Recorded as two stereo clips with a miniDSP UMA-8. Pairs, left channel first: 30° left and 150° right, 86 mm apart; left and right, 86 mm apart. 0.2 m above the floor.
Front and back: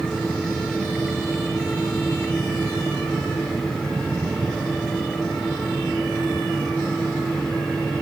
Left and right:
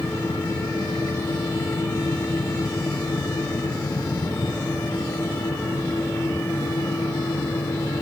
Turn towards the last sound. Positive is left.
No sound to turn to.